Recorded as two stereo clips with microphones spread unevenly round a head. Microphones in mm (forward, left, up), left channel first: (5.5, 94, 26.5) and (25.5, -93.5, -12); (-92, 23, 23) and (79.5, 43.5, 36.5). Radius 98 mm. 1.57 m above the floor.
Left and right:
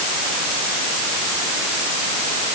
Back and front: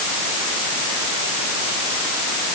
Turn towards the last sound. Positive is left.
No sound to turn to.